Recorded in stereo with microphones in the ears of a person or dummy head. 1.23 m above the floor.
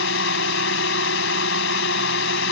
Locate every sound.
0.0 s a drone: 70° left (ahead or behind)